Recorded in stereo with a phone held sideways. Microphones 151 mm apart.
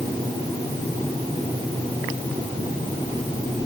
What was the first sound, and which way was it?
Only background noise.